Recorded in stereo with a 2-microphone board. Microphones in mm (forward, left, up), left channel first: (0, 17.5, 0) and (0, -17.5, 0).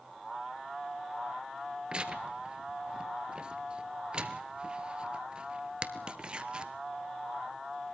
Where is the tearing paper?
30° right (ahead or behind), 1.0 m.